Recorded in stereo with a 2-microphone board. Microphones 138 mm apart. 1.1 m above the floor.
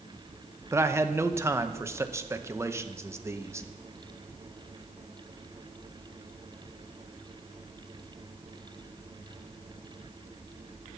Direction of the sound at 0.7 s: 20° right (ahead or behind).